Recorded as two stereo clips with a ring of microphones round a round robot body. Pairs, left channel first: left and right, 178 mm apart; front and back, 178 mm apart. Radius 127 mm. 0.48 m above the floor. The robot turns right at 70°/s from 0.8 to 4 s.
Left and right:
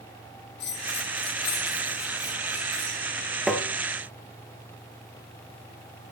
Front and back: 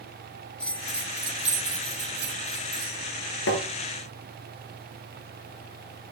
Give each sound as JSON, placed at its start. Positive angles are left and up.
{"t": 0.6, "sound": "a bell", "azimuth_deg": 85, "distance_m": 3.0}
{"t": 3.5, "sound": "tapping", "azimuth_deg": 0, "distance_m": 1.9}